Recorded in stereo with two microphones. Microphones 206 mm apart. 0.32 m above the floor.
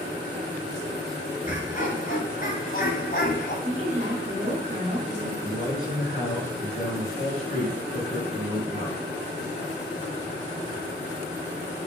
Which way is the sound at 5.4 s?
40° left (ahead or behind).